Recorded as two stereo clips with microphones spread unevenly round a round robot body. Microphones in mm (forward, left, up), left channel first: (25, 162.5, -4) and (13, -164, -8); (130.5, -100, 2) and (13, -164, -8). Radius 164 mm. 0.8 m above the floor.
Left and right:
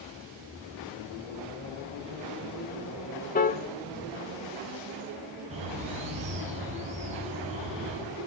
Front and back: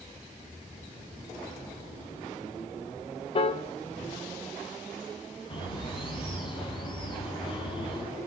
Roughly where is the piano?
Ahead left.